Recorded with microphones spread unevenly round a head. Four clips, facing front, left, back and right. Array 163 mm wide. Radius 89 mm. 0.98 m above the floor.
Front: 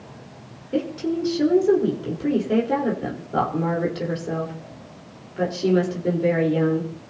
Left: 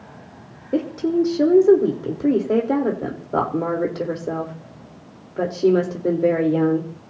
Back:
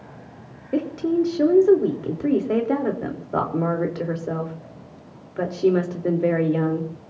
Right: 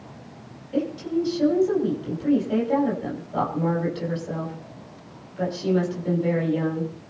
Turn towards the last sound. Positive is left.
turn(degrees=115)